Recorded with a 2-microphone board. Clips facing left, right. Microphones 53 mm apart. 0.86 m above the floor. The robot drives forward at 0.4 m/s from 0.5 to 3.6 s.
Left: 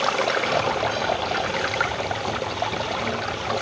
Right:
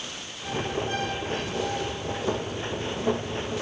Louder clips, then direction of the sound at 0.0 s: Left 16 dB; 85° left.